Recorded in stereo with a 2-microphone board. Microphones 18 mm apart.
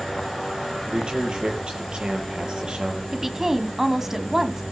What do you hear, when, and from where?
0.9 s a man speaking: 50° right (ahead or behind), 7.5 m
3.1 s a woman speaking: 25° right (ahead or behind), 1.9 m